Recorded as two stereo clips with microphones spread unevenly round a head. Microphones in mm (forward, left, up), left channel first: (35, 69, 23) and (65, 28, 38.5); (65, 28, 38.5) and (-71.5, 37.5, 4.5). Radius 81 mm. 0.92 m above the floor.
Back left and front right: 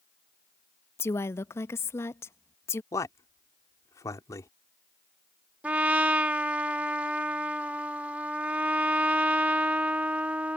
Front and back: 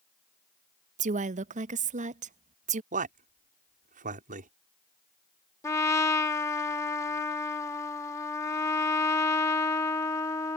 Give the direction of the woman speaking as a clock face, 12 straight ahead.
7 o'clock.